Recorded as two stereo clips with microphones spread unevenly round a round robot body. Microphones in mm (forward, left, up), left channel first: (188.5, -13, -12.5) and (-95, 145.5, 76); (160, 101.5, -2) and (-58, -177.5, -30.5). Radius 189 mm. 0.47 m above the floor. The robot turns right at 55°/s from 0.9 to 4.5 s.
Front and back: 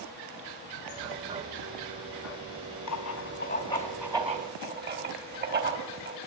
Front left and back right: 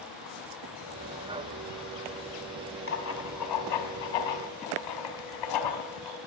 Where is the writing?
5° right, 4.5 m; by 6.2 s 85° left, 4.5 m.